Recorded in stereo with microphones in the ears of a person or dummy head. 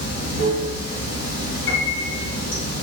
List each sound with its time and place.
0.0 s running water: 60° left (ahead or behind), 1.4 m
1.7 s a piano: 70° left (ahead or behind), 1.2 m